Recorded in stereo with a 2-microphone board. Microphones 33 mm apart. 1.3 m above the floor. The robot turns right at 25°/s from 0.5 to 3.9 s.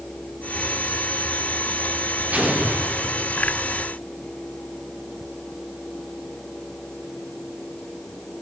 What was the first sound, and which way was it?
An explosion, 55° right (ahead or behind).